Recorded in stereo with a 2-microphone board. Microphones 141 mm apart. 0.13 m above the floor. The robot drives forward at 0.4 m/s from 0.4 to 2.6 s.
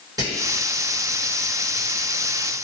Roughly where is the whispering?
Right.